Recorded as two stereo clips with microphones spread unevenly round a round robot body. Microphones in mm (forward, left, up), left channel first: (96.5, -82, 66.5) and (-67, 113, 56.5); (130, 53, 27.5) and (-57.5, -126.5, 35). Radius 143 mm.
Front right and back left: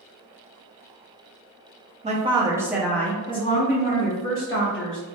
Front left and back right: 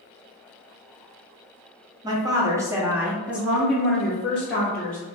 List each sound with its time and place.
2.0 s a woman speaking: 160° left, 0.9 m; by 5.0 s 40° right, 1.3 m